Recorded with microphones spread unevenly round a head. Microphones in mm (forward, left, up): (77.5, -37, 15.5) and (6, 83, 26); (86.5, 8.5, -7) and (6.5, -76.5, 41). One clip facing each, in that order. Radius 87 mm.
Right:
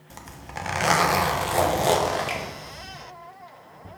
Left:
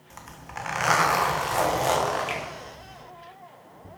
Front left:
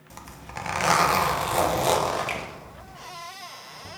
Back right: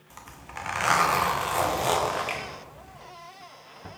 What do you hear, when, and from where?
0.1 s a zipper: 5° right, 1.7 m
2.3 s a finger snap: 10° right, 3 m